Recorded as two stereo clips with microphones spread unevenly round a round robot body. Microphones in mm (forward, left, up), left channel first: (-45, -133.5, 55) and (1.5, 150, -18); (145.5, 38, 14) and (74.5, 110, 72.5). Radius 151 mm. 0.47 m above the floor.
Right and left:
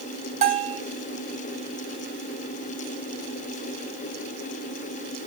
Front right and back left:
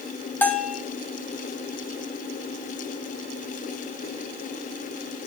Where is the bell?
15° left, 1.7 m.